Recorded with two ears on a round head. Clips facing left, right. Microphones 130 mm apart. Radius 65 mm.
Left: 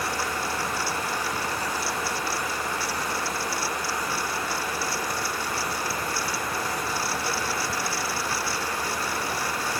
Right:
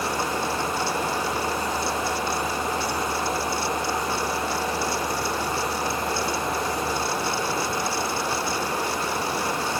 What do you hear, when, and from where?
Only background noise.